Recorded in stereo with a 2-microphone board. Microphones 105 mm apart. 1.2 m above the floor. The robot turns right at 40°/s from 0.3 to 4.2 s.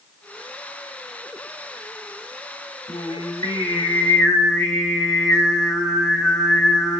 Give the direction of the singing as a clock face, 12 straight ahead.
8 o'clock.